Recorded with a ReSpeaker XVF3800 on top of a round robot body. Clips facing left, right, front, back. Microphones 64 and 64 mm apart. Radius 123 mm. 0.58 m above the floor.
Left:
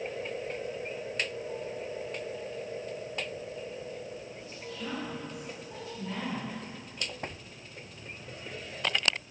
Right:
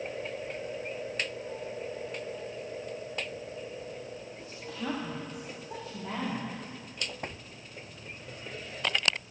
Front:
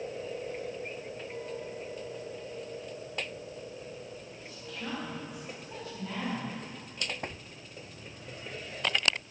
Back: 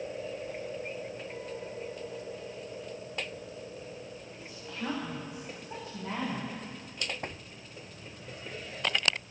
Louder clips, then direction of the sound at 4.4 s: Right 4 dB, back 3 dB; 105° right.